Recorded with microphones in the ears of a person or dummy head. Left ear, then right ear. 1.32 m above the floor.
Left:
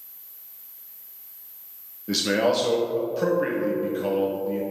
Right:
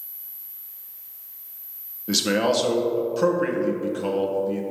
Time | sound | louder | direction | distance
2.1 | a man speaking | right 1 dB | 10° right (ahead or behind) | 0.9 m